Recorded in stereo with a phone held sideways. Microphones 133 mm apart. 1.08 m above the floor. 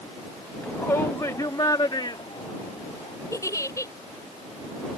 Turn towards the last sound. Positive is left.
turn(degrees=25)  # may be behind; listen again after turning